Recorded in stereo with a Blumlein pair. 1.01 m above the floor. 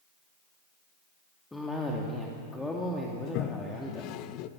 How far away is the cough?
About 2.5 m.